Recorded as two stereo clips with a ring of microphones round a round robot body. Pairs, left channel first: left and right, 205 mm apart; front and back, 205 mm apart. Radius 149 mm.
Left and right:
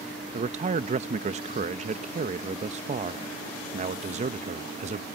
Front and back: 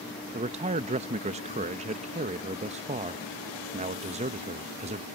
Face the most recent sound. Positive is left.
turn(degrees=-135)